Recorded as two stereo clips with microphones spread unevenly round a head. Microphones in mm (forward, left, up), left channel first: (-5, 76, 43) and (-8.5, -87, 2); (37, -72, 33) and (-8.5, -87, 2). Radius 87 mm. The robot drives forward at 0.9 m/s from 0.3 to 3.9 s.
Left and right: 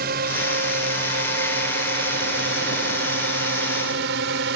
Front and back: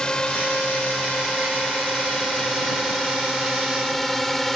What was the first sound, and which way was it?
A drone, 55° right.